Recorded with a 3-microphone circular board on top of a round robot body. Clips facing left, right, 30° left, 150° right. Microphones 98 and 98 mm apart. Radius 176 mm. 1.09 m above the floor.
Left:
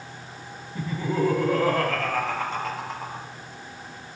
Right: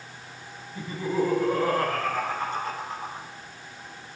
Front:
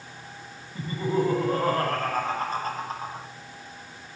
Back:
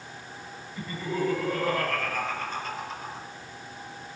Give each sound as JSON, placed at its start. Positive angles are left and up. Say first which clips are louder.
{"t": 0.8, "sound": "laughter", "louder": "left 1 dB, front 5 dB", "azimuth_deg": 95, "distance_m": 9.5}